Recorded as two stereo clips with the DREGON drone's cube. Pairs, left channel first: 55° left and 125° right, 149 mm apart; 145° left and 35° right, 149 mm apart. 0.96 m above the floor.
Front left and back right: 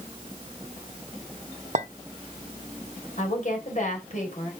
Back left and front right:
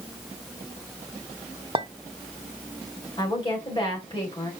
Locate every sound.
1.8 s a clink: 90° right, 0.7 m
3.2 s a woman speaking: 90° left, 3.5 m